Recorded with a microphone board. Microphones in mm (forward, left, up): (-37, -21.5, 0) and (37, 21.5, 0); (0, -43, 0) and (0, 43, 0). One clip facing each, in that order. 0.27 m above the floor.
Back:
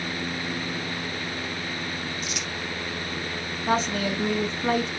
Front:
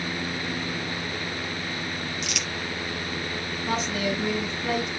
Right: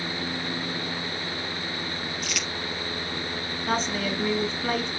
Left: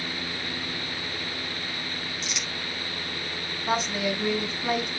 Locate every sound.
2.2 s crumpling: 25° left, 2.5 m
3.7 s a woman speaking: 165° left, 2.5 m